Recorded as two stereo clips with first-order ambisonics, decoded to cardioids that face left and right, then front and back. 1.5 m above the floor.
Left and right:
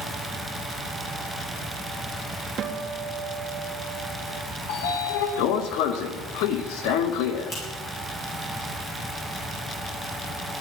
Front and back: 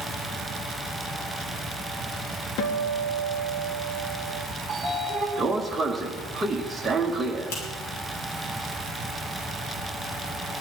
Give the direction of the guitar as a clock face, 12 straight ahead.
1 o'clock.